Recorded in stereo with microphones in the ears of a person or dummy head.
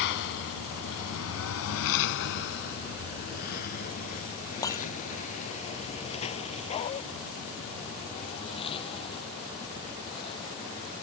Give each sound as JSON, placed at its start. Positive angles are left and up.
{"t": 0.0, "sound": "a lawn mower", "side_deg": 60}
{"t": 4.6, "sound": "breaking glass", "side_deg": 20}
{"t": 6.7, "sound": "a dog barking", "side_deg": 30}